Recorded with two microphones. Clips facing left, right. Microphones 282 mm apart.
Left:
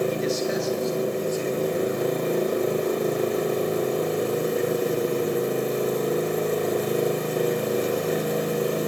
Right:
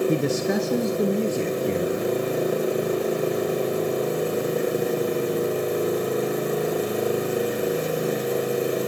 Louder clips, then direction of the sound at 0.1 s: Right 3 dB; 60° right (ahead or behind).